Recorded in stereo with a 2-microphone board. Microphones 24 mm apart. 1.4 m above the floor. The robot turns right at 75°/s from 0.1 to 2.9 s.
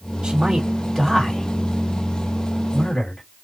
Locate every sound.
0.2 s a man speaking: 50° right (ahead or behind), 2.5 m; by 3.2 s 30° left (ahead or behind), 2.5 m